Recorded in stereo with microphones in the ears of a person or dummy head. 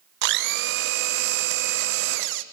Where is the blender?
65° right (ahead or behind), 0.9 m.